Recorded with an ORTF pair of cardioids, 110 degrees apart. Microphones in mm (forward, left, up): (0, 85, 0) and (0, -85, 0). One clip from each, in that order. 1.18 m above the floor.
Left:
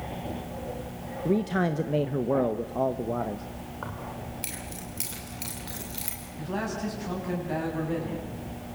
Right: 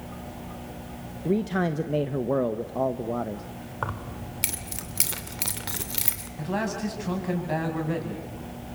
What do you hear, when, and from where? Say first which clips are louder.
1.2 s a man speaking: even; straight ahead, 0.9 m
3.8 s keys jangling: right 5 dB; 50° right, 2.5 m
6.4 s a man speaking: right 3 dB; 25° right, 7.5 m